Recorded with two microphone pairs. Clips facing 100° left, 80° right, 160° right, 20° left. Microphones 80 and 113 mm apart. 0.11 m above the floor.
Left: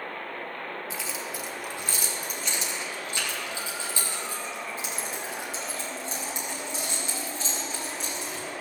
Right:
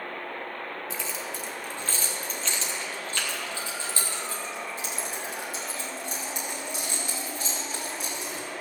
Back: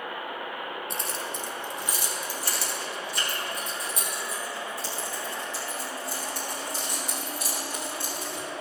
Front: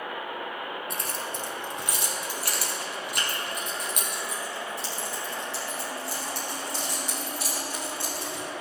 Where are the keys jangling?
10° left, 1.5 m; by 8.6 s 40° left, 5.5 m.